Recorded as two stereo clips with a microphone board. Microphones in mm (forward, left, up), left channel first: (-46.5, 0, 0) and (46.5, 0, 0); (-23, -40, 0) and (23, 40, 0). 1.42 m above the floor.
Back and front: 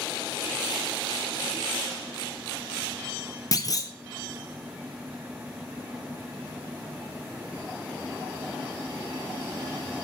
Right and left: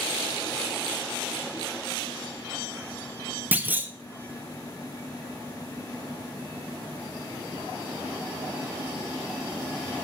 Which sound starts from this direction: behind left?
A clunk, at 3.5 s.